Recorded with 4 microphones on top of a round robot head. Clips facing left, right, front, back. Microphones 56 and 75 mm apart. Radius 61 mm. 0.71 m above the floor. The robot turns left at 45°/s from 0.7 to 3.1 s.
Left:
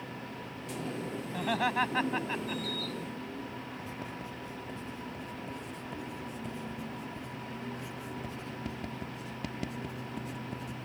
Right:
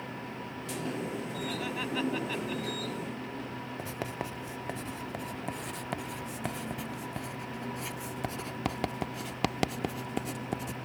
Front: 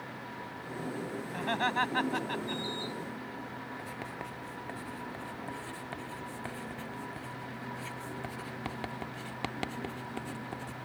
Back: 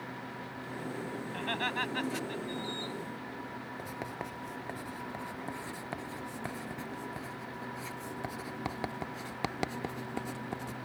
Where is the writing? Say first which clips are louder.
Right 4 dB, back 1 dB; 105° right.